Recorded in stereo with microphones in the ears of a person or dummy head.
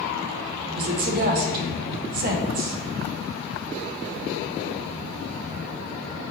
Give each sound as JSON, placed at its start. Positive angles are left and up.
{"t": 0.8, "sound": "a woman speaking", "side_deg": -45, "distance_m": 0.6}